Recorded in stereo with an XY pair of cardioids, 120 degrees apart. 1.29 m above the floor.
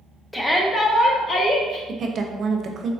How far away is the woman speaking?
About 0.5 m.